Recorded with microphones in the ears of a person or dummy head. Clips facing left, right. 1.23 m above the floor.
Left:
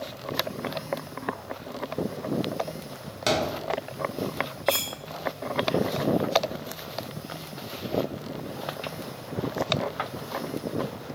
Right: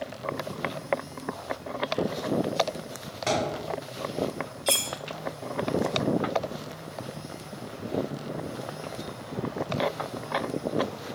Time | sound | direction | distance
3.3 | a thud | 55° left (ahead or behind) | 1.3 m
4.7 | cutlery clinking | 30° right (ahead or behind) | 0.7 m